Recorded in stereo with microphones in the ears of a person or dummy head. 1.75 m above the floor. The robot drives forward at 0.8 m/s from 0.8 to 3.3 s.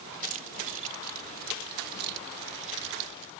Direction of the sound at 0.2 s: 40° right (ahead or behind).